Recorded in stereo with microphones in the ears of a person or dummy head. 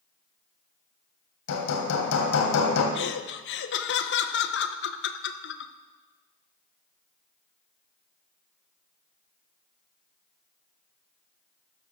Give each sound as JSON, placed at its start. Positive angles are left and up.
{"t": 1.5, "sound": "hammering", "side_deg": 75, "distance_m": 2.5}
{"t": 3.0, "sound": "laughter", "side_deg": 55, "distance_m": 1.0}